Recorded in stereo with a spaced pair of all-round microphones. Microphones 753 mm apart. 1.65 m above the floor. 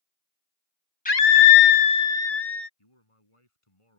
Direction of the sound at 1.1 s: 10° left (ahead or behind).